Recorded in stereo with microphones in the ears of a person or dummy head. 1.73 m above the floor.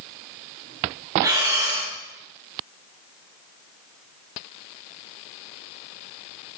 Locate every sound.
1.2 s breathing: 20° right (ahead or behind), 1.5 m